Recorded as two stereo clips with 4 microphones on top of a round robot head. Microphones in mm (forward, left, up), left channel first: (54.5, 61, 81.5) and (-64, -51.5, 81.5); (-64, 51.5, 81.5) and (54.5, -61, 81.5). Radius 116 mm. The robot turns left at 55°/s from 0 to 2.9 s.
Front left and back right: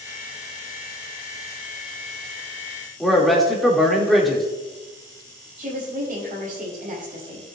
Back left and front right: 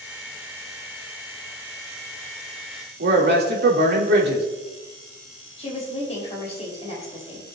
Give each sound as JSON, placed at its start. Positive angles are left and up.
{"t": 3.0, "sound": "a man speaking", "azimuth_deg": -45, "distance_m": 2.5}
{"t": 5.6, "sound": "a woman speaking", "azimuth_deg": -170, "distance_m": 5.0}